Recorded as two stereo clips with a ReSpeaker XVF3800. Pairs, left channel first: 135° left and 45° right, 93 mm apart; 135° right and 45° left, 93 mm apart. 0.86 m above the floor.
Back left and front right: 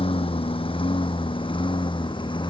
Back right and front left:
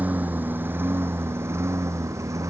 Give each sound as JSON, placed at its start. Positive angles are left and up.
{"t": 0.0, "sound": "a lawn mower", "azimuth_deg": 120}